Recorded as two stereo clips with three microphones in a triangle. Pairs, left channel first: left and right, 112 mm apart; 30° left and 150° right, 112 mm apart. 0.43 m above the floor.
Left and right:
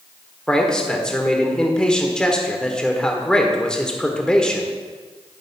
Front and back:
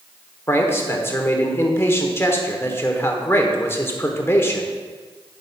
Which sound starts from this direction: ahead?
A man speaking, at 0.5 s.